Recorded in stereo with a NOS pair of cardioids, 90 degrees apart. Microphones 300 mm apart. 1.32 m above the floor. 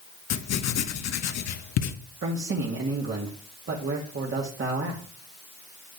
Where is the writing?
60° left, 1.3 m.